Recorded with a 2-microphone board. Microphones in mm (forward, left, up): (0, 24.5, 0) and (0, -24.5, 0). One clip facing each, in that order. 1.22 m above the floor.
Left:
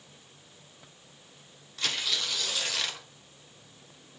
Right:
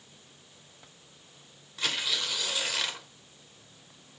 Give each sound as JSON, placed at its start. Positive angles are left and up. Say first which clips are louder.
{"t": 1.8, "sound": "tearing paper", "louder": "right 1 dB", "side_deg": -10, "distance_m": 0.7}